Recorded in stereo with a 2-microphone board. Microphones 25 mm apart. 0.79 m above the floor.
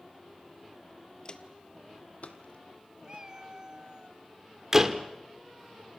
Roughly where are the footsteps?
Left.